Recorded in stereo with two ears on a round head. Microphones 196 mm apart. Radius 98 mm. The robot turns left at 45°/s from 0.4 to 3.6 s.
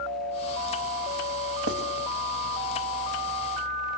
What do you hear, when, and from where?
1.7 s writing: 60° right (ahead or behind), 2 m